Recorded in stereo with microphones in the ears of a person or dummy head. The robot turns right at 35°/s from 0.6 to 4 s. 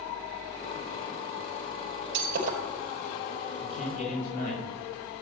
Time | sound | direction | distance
2.1 | breaking glass | 60° right (ahead or behind) | 4.5 m
3.6 | a man speaking | 60° left (ahead or behind) | 5.5 m